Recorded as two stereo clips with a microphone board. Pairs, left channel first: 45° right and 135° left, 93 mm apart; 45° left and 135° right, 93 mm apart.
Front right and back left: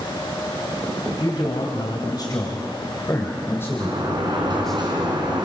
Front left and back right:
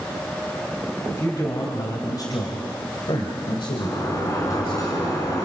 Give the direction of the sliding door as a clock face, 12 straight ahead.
9 o'clock.